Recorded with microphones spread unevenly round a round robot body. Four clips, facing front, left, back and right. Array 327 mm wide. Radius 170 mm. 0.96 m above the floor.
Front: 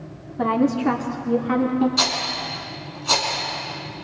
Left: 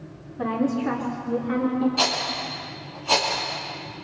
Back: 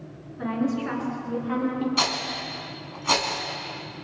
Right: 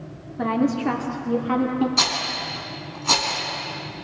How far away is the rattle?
About 2.5 m.